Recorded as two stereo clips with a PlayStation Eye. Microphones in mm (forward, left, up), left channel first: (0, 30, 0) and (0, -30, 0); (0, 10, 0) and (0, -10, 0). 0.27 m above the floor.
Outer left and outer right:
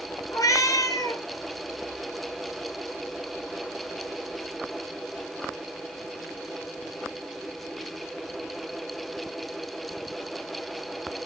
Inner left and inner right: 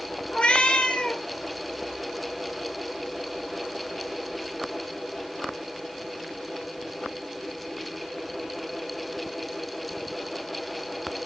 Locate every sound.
0.3 s a cat meowing: 70° left (ahead or behind), 2 m